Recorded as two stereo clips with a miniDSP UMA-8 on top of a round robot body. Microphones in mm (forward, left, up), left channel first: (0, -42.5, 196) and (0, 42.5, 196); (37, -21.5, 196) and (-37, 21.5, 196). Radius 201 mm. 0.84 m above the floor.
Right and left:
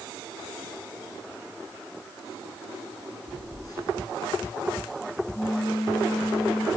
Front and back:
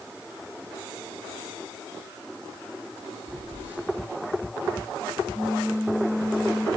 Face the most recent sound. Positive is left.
turn(degrees=-140)